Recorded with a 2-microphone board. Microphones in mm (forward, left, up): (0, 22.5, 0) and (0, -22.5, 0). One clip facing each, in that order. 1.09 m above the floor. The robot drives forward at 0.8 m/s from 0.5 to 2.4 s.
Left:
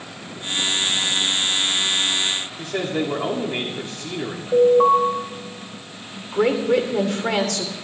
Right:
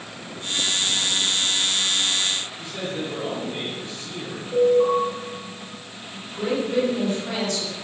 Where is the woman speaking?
85° left, 3 m.